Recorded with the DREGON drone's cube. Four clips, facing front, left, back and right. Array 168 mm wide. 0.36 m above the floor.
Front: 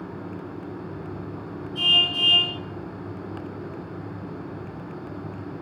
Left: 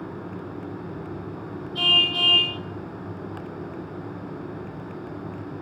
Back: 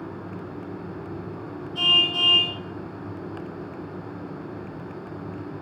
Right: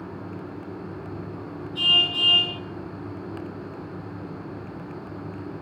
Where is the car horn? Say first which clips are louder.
Left 2 dB, back 1 dB; 150° left, 5.5 m.